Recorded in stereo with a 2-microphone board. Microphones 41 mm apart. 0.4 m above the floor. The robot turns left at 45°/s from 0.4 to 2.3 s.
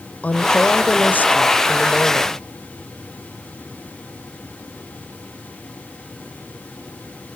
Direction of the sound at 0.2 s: 125° left.